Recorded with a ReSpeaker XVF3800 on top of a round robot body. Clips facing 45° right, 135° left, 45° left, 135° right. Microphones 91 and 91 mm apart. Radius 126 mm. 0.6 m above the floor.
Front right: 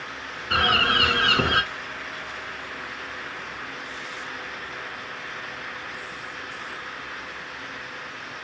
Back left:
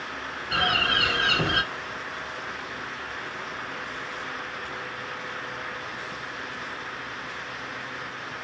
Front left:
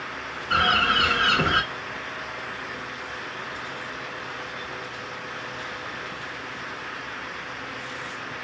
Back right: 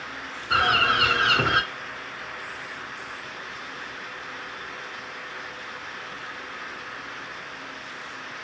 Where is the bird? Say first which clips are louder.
Front right 4 dB, even; 50° right, 1.6 m.